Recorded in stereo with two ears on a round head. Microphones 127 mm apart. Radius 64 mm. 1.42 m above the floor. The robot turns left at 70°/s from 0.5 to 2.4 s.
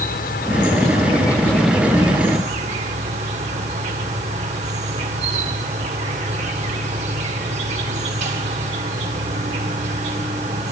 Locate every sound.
0.0 s an insect: 80° left, 1.7 m; by 10.7 s 55° right, 1.7 m